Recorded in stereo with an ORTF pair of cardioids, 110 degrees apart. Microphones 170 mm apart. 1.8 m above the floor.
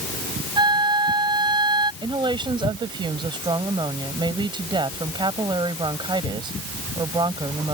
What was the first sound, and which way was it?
A flute, 25° right.